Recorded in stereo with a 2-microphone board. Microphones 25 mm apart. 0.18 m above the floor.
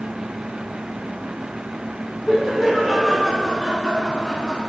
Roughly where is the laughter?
Centre.